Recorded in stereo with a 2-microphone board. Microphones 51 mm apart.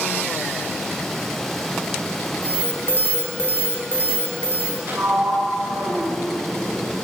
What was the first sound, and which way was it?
An alarm, 45° left (ahead or behind).